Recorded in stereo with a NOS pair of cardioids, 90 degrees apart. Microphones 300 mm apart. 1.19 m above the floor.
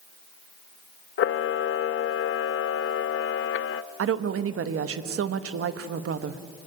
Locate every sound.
1.2 s a camera shutter: 45° left, 0.7 m
4.0 s a woman speaking: 50° right, 1.3 m